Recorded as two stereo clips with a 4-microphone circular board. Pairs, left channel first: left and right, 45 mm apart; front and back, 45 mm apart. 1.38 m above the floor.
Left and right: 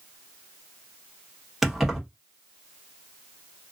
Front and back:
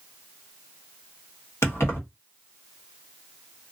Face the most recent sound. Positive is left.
turn(degrees=-10)